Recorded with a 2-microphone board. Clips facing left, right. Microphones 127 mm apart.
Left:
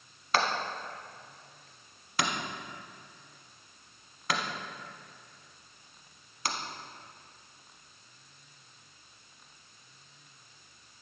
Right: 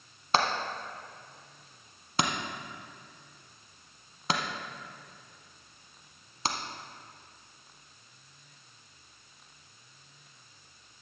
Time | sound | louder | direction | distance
0.3 | hammering | right 1 dB | 25° right (ahead or behind) | 1.0 m